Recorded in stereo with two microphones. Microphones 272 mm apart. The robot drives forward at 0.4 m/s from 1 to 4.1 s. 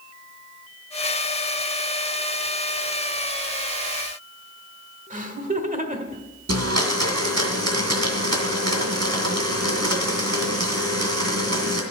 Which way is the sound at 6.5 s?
70° right (ahead or behind).